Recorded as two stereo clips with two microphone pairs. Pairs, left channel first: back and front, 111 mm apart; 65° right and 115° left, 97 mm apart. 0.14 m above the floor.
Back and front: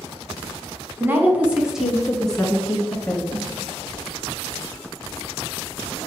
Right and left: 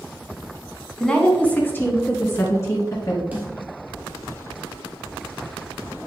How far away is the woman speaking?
About 1.1 m.